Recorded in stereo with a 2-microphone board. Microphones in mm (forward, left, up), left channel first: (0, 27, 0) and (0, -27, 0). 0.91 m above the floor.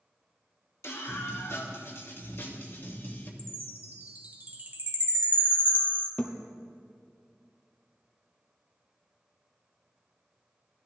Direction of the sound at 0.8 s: 70° left (ahead or behind).